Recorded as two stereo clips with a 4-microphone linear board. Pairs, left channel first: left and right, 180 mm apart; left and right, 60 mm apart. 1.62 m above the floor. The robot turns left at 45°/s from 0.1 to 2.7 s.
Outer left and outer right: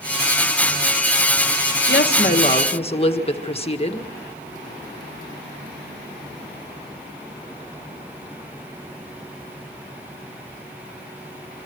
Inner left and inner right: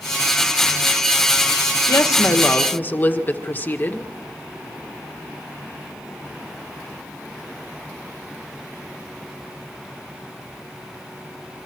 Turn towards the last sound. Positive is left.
turn(degrees=30)